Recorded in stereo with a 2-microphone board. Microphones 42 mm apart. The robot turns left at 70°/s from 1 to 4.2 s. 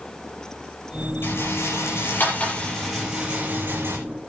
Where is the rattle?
60° left (ahead or behind), 7 m; by 4.0 s 70° right (ahead or behind), 7 m.